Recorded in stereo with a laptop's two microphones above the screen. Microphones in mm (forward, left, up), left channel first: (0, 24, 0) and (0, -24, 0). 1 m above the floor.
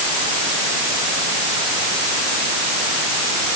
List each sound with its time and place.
Only background noise.